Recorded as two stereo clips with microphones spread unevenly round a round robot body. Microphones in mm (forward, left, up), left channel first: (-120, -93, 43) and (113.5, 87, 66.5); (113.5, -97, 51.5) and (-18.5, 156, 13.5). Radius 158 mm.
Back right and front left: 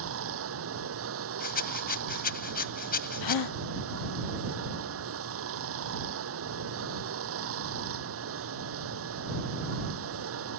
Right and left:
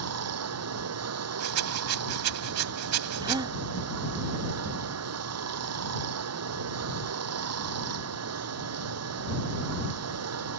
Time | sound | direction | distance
0.0 | running water | 85° left | ?
1.4 | a rattle | 155° left | ?
3.2 | a gasp | 160° right | ?